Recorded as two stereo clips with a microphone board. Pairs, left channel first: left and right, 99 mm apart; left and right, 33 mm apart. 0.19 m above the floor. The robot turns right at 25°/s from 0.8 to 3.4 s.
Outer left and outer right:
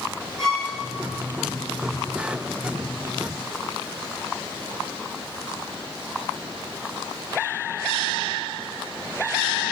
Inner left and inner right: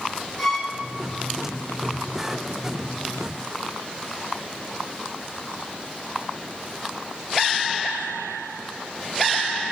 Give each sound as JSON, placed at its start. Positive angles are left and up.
{"t": 0.4, "sound": "a violin", "side_deg": 5, "distance_m": 2.5}